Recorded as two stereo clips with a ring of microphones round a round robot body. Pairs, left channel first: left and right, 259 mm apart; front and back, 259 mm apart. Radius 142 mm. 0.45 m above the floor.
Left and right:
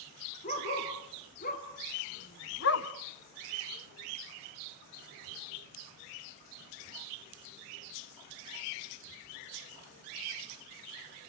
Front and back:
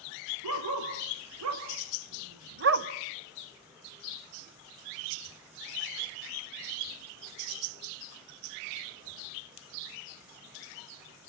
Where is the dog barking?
155° left, 4.5 m; by 2.9 s 130° left, 0.9 m.